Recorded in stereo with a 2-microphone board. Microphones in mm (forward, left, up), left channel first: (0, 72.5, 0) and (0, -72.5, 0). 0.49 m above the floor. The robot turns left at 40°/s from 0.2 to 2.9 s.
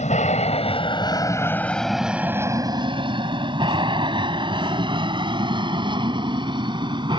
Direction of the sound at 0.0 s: 55° left (ahead or behind).